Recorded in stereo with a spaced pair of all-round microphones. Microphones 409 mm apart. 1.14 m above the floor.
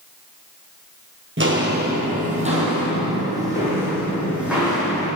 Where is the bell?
No bell in this recording.